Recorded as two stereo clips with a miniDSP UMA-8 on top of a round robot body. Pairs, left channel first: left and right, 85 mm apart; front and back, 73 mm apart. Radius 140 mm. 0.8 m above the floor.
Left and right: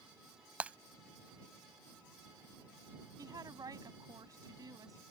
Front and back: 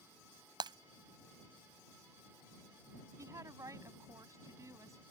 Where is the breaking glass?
165° right.